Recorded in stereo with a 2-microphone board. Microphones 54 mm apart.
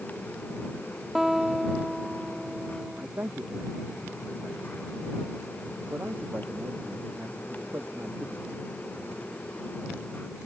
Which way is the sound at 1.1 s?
5° right (ahead or behind).